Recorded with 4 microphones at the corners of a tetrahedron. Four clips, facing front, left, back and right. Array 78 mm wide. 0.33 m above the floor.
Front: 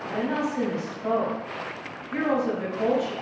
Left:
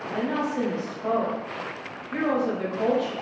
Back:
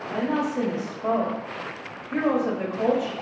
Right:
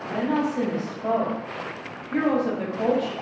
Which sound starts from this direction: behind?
A woman speaking, at 0.1 s.